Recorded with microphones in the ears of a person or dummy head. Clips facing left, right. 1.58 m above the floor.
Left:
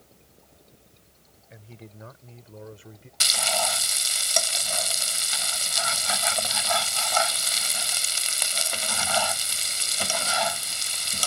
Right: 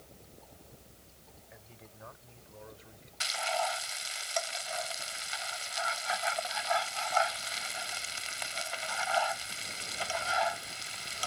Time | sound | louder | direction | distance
1.5 | a man speaking | left 11 dB | 45° left (ahead or behind) | ?
3.2 | frying | left 4 dB | 60° left (ahead or behind) | ?